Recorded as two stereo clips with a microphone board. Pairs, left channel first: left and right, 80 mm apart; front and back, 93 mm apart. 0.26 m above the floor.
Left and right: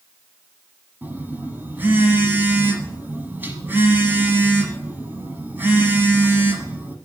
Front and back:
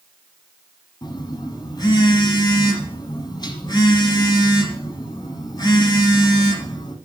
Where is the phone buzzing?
25° right, 1.1 m.